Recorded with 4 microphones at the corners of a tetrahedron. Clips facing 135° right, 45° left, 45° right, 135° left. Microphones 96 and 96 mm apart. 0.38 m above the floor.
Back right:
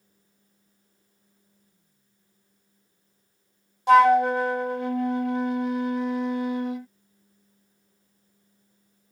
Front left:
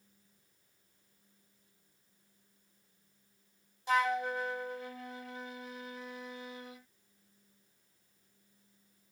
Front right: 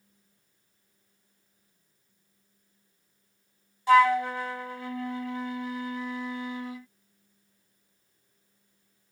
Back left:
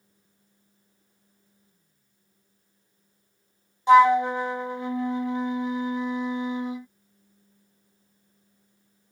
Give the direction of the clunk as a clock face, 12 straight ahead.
I don't hear a clunk.